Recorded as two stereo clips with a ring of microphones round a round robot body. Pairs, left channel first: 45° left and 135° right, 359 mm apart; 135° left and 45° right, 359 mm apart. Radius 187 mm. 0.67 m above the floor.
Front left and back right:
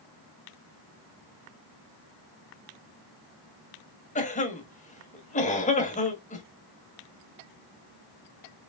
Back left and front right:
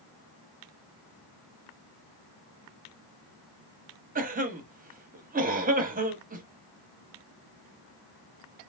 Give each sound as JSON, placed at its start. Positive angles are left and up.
{"t": 4.2, "sound": "a cough", "azimuth_deg": -5, "distance_m": 1.1}